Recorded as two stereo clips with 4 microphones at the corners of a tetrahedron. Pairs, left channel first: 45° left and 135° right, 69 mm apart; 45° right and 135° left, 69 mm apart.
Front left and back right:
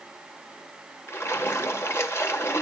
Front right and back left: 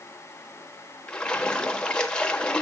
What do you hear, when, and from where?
1.1 s a splash: 25° left, 1.0 m